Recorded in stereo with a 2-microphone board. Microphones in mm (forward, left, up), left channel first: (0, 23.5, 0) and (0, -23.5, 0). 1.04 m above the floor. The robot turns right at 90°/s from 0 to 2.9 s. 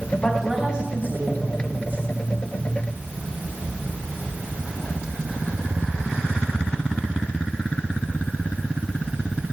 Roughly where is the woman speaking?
Behind left.